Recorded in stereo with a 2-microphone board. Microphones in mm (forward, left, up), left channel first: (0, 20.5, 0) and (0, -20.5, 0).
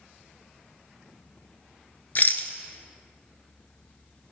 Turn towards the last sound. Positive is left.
turn(degrees=50)  # may be behind; listen again after turning